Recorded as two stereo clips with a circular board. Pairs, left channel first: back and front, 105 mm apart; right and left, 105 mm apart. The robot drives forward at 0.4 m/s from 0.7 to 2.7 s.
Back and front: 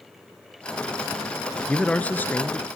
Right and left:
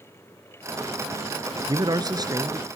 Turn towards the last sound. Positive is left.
turn(degrees=125)